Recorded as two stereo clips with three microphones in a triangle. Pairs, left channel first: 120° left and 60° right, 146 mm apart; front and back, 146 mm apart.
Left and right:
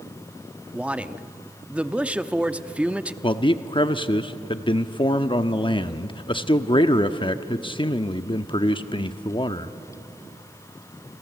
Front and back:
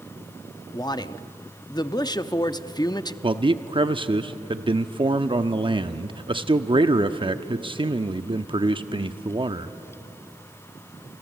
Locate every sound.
0.7 s a man speaking: 10° left, 0.7 m
3.2 s a man speaking: 150° left, 0.8 m